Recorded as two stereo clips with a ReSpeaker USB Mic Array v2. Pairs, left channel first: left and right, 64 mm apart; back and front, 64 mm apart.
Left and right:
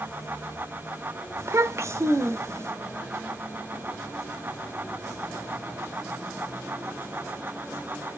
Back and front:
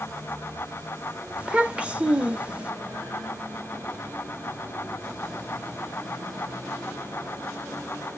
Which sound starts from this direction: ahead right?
A child speaking, at 1.4 s.